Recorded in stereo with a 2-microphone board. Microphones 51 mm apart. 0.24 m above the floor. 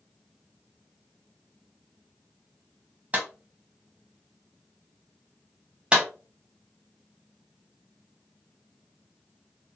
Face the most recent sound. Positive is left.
turn(degrees=-20)  # may be behind; listen again after turning